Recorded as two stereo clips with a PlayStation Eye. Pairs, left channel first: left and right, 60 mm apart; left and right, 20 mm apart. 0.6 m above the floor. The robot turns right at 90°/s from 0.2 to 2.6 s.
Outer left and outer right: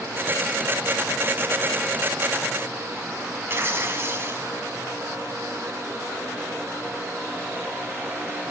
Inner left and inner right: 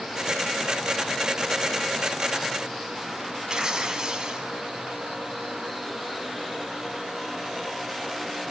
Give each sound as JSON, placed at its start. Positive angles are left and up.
{"t": 3.5, "sound": "tearing paper", "side_deg": -40, "distance_m": 2.0}